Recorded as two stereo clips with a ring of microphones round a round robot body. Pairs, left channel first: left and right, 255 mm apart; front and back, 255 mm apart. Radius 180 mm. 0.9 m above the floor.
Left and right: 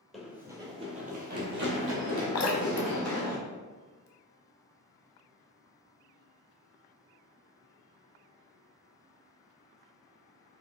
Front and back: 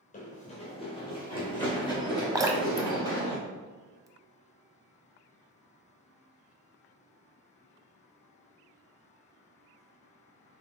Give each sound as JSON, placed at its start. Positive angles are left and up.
{"t": 0.1, "sound": "running footsteps", "azimuth_deg": 0, "distance_m": 1.0}
{"t": 2.4, "sound": "dripping", "azimuth_deg": 100, "distance_m": 0.7}